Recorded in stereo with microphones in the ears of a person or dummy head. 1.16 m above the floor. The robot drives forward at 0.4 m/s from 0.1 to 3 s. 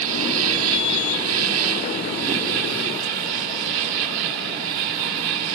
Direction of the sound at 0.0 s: 85° right.